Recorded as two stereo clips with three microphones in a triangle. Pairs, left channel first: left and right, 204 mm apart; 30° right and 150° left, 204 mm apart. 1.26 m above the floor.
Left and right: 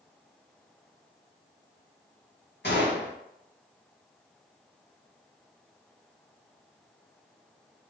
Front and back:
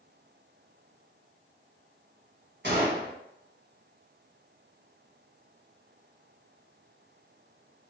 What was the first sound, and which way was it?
A gunshot, 120° left.